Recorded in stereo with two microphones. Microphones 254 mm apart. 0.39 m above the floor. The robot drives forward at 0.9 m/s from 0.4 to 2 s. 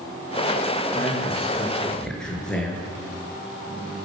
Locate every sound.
0.9 s a man speaking: centre (ahead or behind), 6.5 m; by 2.8 s 5° left (ahead or behind), 5.5 m